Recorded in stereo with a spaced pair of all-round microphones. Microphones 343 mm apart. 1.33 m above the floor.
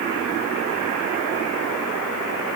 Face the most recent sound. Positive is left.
No sound to turn to.